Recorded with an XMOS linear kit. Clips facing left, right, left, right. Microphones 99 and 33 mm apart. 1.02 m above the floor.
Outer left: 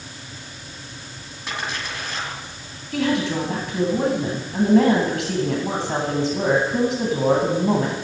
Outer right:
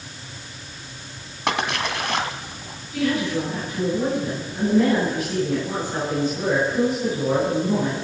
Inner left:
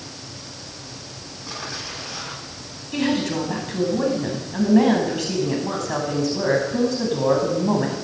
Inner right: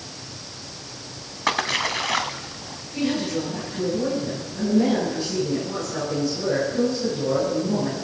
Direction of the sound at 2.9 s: 85° left.